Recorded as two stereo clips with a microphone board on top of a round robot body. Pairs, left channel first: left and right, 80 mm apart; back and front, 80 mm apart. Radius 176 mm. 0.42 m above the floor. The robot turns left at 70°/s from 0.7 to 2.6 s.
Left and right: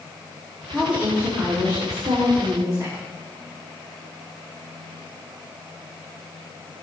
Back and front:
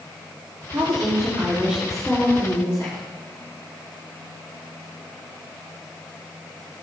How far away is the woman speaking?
About 3 m.